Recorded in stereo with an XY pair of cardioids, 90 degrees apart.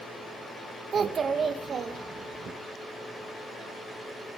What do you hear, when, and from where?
0.9 s a child speaking: 55° right, 1.8 m